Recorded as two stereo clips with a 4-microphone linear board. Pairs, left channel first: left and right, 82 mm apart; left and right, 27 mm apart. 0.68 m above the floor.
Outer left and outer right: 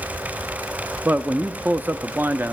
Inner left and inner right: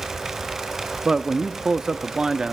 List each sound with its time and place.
1.1 s a man speaking: 25° right (ahead or behind), 0.5 m